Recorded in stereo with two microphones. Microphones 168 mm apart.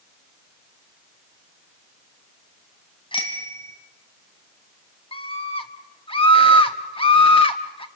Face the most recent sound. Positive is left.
turn(degrees=35)  # may be behind; listen again after turning